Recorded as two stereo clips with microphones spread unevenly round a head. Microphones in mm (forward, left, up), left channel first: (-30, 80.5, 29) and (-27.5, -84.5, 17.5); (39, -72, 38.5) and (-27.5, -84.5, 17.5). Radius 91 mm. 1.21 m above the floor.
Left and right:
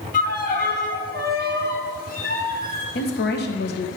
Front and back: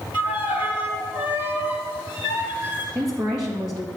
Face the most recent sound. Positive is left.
turn(degrees=115)